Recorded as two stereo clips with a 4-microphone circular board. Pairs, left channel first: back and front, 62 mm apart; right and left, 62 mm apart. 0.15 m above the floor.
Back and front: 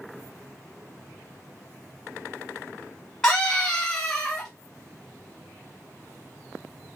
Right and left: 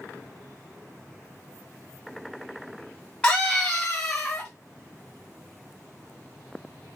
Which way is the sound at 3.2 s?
125° right.